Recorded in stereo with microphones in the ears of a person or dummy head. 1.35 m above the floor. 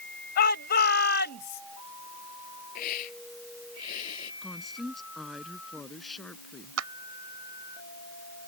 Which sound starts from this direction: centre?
A woman speaking, at 4.4 s.